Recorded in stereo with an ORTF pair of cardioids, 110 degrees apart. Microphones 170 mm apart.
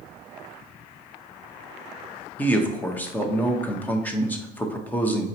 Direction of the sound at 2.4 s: 10° left.